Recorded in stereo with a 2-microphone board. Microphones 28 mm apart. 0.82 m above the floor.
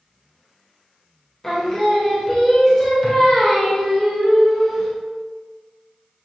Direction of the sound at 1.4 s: 15° left (ahead or behind).